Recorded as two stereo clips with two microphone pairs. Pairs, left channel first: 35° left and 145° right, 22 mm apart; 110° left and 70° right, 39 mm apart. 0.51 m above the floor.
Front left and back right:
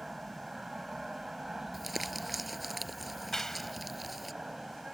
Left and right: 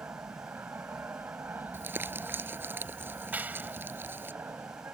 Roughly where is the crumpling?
Ahead right.